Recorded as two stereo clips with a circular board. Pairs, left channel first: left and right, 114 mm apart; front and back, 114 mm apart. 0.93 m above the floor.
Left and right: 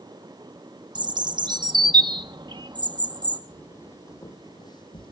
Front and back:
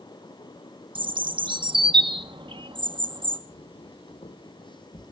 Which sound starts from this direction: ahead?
Footsteps, at 3.5 s.